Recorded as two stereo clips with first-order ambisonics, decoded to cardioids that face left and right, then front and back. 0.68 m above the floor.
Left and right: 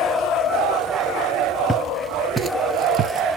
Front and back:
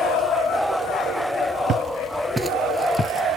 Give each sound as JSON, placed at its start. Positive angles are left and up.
{"t": 1.7, "sound": "footsteps", "azimuth_deg": 170, "distance_m": 0.7}